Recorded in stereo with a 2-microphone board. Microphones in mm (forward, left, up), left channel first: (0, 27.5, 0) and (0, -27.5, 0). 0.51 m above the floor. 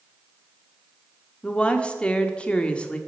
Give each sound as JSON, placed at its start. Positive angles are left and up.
{"t": 1.4, "sound": "a woman speaking", "side_deg": 20, "distance_m": 1.1}